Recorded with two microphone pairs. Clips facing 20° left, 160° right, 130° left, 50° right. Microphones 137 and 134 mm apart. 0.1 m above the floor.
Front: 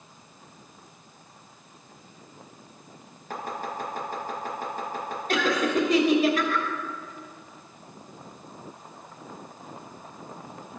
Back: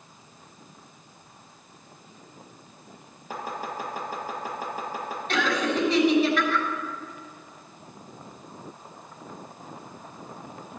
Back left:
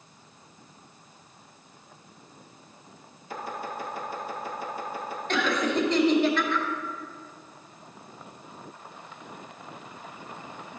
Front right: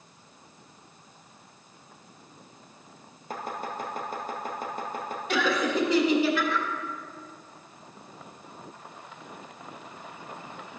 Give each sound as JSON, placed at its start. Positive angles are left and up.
{"t": 3.3, "sound": "chopping", "azimuth_deg": -80, "distance_m": 2.5}
{"t": 5.3, "sound": "laughter", "azimuth_deg": 30, "distance_m": 2.5}